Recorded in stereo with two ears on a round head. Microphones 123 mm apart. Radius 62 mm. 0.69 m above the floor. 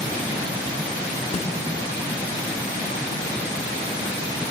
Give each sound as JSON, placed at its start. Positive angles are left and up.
{"t": 1.3, "sound": "a snare drum", "side_deg": 45, "distance_m": 1.0}